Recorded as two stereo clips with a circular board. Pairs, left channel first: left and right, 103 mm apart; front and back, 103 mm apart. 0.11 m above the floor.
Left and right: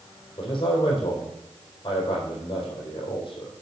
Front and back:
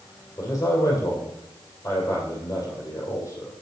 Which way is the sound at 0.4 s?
55° left.